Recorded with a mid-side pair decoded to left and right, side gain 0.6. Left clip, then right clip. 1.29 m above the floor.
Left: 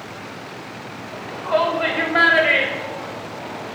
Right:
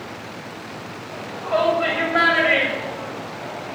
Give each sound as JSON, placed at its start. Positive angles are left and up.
{"t": 1.1, "sound": "a shout", "azimuth_deg": 40, "distance_m": 4.5}